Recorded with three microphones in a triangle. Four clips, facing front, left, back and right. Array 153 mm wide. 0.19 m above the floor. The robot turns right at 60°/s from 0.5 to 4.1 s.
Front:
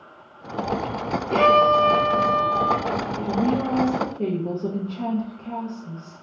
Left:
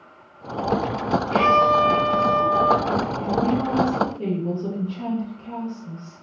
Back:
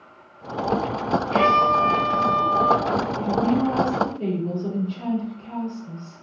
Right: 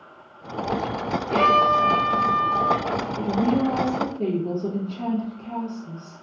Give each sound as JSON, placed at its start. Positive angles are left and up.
{"t": 1.3, "sound": "a violin", "azimuth_deg": -30, "distance_m": 1.4}
{"t": 3.2, "sound": "a woman speaking", "azimuth_deg": -40, "distance_m": 2.0}